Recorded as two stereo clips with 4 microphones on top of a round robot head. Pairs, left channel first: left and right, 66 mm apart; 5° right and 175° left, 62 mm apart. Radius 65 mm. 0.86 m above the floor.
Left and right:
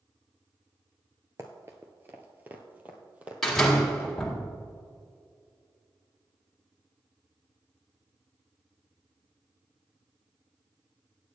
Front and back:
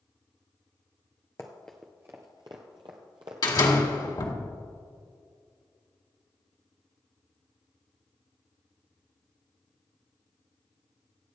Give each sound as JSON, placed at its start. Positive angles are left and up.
{"t": 1.4, "sound": "running footsteps", "azimuth_deg": -45, "distance_m": 0.9}
{"t": 3.4, "sound": "a door slam", "azimuth_deg": 5, "distance_m": 2.0}